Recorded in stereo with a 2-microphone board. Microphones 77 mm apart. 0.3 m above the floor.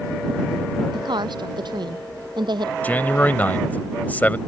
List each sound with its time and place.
0.9 s a woman speaking: 75° right (ahead or behind)
2.8 s a man speaking: 25° left (ahead or behind)